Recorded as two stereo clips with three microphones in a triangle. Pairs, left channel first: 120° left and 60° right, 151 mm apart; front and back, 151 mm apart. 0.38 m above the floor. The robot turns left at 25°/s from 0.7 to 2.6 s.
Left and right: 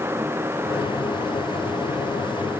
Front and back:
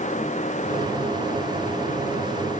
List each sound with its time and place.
Only background noise.